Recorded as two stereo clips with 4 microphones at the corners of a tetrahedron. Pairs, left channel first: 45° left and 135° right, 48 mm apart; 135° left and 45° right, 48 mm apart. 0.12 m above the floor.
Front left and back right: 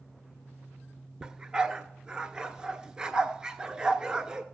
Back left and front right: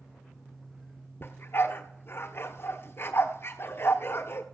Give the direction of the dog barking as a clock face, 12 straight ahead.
7 o'clock.